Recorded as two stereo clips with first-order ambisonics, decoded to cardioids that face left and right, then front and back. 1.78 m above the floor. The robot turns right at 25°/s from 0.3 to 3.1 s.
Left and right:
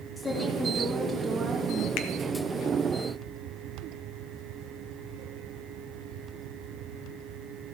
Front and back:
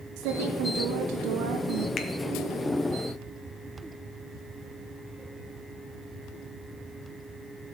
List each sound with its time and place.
0.2 s a woman speaking: 170° left, 3 m; by 1.9 s 150° right, 3 m
2.0 s a finger snap: 60° left, 1.1 m; by 2.1 s 65° left, 1.1 m